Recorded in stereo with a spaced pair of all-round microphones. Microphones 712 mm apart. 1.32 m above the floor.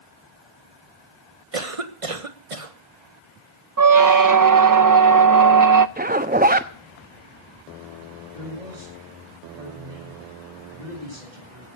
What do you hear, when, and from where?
1.5 s a cough: 50° right (ahead or behind), 1.7 m
3.8 s a squeak: 30° right (ahead or behind), 0.5 m
6.0 s a zipper: 15° right (ahead or behind), 0.9 m
8.3 s a man speaking: 85° right, 7.5 m